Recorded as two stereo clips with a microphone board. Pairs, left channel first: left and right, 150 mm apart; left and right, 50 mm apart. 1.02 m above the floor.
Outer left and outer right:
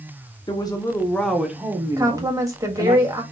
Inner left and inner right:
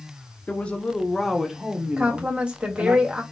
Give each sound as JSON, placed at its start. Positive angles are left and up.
{"t": 0.5, "sound": "a woman speaking", "side_deg": 30, "distance_m": 0.8}
{"t": 2.0, "sound": "a woman speaking", "side_deg": -20, "distance_m": 1.5}